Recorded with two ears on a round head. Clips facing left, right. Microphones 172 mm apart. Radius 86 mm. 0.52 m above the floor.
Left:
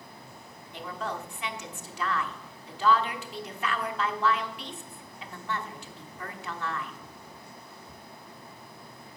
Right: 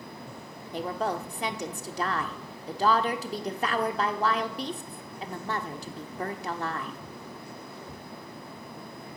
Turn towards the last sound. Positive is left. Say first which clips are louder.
# right 6 dB
turn(degrees=-30)  # may be behind; listen again after turning